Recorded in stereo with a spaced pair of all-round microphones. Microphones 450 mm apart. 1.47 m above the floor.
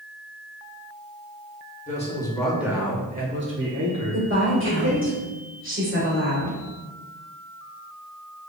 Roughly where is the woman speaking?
Right.